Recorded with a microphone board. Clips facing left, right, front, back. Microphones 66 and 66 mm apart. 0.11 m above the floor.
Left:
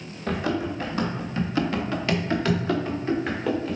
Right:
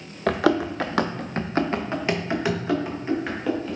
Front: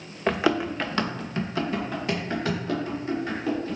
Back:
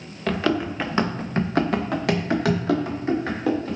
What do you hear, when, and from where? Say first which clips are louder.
0.3 s running footsteps: right 5 dB, even; 70° right, 0.8 m; by 3.8 s straight behind, 2 m